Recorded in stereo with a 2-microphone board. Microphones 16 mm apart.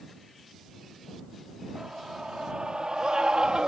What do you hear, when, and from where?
1.8 s a scream: 55° right (ahead or behind); by 3.7 s 65° right (ahead or behind)